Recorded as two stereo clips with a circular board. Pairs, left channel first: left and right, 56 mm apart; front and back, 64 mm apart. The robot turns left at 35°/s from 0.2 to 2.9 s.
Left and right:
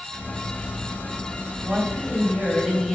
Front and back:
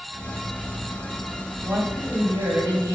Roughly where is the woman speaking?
Behind right.